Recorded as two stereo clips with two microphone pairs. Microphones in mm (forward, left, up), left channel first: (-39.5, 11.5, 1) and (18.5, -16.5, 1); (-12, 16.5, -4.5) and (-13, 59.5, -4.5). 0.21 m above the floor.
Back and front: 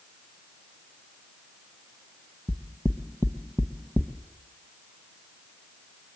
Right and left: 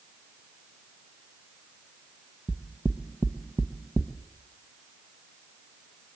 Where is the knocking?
100° left, 0.9 m.